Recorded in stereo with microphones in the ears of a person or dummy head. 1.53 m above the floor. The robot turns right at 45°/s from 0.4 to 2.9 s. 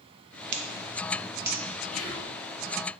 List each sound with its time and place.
0.5 s scissors: 60° right (ahead or behind), 0.7 m; by 1.6 s 10° right (ahead or behind), 0.7 m
1.9 s whispering: centre (ahead or behind), 0.7 m; by 2.4 s 20° left (ahead or behind), 0.7 m